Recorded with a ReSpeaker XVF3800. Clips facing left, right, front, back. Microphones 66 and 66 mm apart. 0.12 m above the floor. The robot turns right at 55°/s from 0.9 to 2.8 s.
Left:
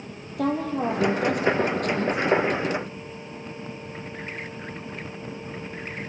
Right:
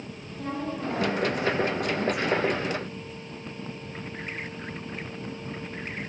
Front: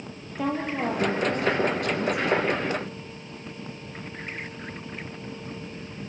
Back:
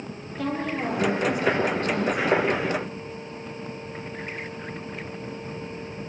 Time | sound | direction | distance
0.4 | a woman speaking | 75° left | 4 m